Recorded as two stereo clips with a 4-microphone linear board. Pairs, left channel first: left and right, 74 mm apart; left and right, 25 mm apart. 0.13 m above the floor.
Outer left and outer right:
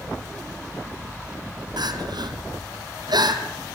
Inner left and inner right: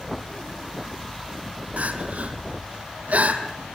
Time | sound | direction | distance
1.8 | crying | 75° right (ahead or behind) | 2.5 m